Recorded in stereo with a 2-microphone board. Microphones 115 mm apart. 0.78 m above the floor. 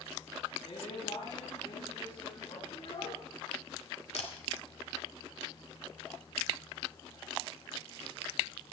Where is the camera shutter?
70° left (ahead or behind), 2 m.